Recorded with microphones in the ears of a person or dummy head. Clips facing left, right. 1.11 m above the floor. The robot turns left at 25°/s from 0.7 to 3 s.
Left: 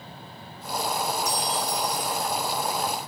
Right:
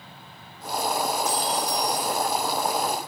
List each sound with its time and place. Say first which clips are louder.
1.2 s a clink: right 2 dB; 40° left (ahead or behind), 1.9 m; by 2.2 s 65° left (ahead or behind), 1.9 m